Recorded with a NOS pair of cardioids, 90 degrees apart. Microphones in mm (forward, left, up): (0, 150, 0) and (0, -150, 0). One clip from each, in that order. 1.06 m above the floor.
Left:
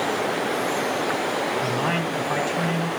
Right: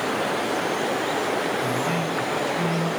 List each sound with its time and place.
1.6 s a man speaking: 50° left, 5 m